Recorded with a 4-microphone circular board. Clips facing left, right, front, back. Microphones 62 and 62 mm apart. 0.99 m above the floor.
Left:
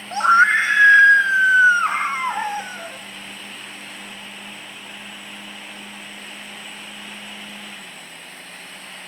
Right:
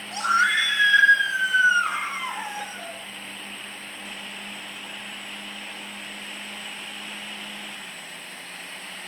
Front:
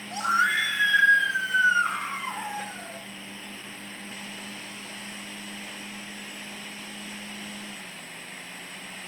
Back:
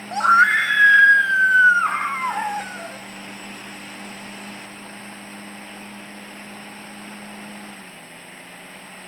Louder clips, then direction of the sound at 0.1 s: Left 7 dB, back 9 dB; 145° left.